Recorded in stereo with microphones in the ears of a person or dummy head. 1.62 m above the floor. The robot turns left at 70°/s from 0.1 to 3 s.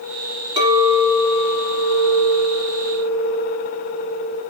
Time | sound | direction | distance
0.6 | a clink | 155° right | 2.5 m